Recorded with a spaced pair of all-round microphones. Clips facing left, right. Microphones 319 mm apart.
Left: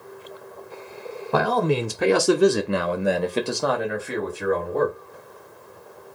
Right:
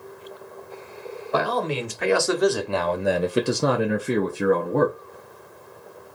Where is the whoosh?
I don't hear a whoosh.